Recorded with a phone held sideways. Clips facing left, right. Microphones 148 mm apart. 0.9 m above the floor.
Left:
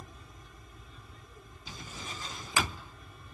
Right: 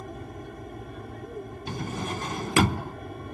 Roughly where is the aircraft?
Right.